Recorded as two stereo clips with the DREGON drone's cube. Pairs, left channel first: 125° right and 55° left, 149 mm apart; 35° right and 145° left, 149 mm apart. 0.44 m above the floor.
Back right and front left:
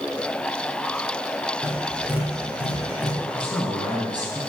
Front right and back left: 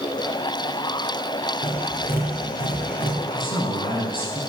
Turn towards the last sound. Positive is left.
turn(degrees=-25)